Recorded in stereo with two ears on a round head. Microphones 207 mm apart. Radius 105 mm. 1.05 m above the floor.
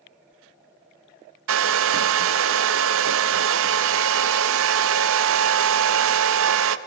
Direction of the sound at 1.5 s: 60° right (ahead or behind).